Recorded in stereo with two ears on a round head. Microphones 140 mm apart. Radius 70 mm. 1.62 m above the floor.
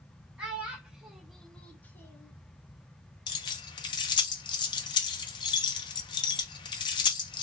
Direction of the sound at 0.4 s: 10° right (ahead or behind).